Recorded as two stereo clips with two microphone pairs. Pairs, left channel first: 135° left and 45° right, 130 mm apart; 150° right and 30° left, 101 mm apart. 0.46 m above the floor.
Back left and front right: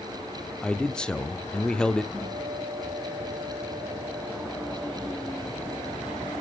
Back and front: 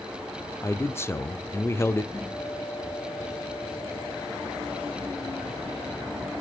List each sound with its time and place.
0.6 s a man speaking: 155° right, 0.7 m
2.1 s a guitar: 110° right, 7.5 m